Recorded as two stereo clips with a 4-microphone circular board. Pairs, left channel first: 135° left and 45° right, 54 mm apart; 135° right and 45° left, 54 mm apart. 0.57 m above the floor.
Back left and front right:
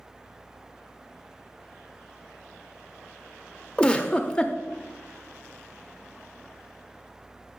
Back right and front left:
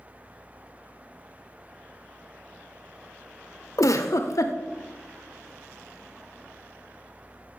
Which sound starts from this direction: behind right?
A giggle, at 3.8 s.